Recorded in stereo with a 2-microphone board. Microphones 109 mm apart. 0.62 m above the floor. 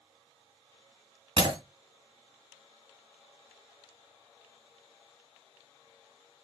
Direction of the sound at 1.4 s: 45° right (ahead or behind).